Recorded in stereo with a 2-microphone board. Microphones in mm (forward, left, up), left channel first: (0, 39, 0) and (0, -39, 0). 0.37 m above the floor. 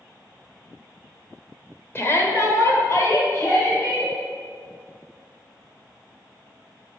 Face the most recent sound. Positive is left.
turn(degrees=35)  # may be behind; listen again after turning